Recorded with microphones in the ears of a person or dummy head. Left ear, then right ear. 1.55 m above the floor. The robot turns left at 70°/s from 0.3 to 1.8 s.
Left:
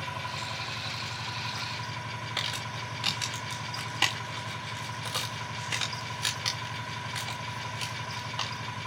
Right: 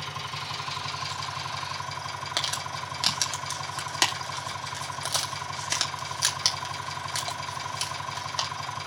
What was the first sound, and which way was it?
An engine running, 15° right.